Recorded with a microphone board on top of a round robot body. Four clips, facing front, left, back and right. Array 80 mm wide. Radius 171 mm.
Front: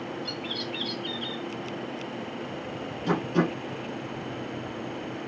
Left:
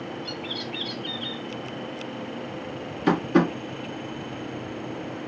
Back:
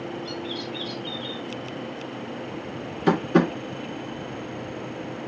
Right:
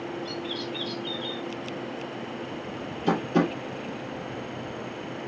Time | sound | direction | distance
0.2 | a bird | 60° left | 1.9 m
3.1 | tapping | 145° left | 2 m